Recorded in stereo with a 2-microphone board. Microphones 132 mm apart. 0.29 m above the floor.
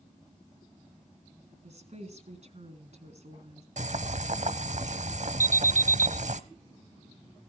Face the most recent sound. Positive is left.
turn(degrees=20)  # may be behind; listen again after turning